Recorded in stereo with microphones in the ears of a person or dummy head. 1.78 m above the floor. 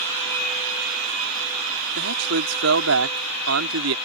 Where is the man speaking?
80° right.